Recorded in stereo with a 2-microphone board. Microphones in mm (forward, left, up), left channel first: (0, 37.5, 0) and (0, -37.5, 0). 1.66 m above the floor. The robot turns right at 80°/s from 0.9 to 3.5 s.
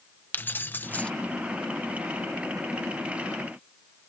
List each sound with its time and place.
0.3 s keys jangling: 25° left (ahead or behind); by 1.1 s 15° left (ahead or behind)